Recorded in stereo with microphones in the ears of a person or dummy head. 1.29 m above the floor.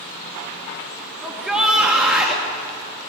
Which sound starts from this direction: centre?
A shout, at 1.2 s.